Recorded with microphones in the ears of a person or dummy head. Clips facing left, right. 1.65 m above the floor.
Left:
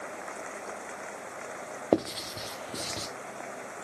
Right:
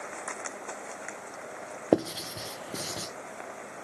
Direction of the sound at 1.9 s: 10° right (ahead or behind).